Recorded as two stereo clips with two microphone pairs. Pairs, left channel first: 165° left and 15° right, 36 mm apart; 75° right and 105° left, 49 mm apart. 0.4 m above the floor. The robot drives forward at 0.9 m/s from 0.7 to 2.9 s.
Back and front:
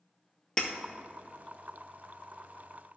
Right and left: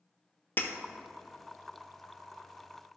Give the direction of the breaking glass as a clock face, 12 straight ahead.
4 o'clock.